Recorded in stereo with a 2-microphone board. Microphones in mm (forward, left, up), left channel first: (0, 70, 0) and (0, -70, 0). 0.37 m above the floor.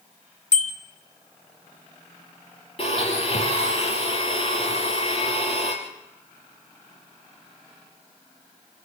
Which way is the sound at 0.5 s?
55° left (ahead or behind).